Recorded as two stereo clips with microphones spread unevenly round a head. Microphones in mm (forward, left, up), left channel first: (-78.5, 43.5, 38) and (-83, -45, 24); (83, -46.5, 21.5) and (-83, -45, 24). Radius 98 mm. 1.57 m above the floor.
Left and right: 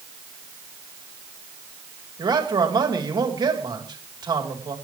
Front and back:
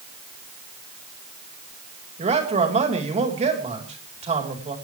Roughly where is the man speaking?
Behind right.